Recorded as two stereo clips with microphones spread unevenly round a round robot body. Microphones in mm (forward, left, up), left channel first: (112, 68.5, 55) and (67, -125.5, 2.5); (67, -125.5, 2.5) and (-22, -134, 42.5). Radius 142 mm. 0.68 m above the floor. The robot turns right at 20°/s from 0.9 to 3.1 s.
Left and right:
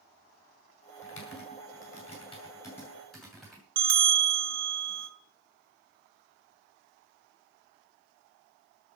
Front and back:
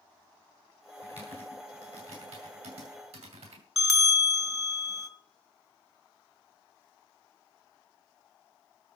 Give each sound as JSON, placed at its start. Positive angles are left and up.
{"t": 1.0, "sound": "typing on a keyboard", "azimuth_deg": 125, "distance_m": 2.5}
{"t": 3.8, "sound": "a bell", "azimuth_deg": -80, "distance_m": 2.5}